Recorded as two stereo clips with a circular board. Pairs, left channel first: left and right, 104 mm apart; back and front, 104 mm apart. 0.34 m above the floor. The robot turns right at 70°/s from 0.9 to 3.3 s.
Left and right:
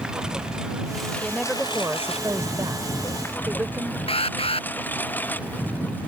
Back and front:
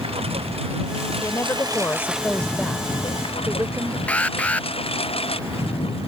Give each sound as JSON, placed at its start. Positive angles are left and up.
{"t": 0.0, "sound": "a lawn mower", "azimuth_deg": -5}
{"t": 1.2, "sound": "a woman speaking", "azimuth_deg": 170}
{"t": 4.1, "sound": "an alarm", "azimuth_deg": 105}